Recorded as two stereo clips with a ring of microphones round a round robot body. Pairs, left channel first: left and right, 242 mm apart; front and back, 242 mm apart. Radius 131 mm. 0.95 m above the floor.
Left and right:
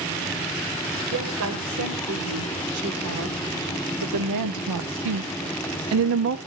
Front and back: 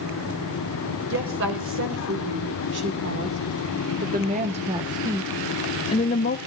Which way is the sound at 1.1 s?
135° right.